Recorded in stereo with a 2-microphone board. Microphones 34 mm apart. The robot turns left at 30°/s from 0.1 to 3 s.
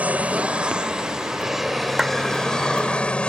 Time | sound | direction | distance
0.0 | an aircraft | 125° right | ?
2.0 | a clap | 20° right (ahead or behind) | ?